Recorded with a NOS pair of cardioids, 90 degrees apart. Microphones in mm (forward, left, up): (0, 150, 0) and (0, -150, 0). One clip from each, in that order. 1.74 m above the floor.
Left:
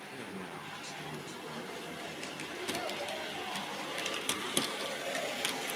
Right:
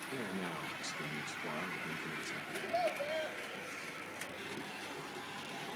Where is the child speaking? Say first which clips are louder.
Right 3 dB; 25° right, 7 m.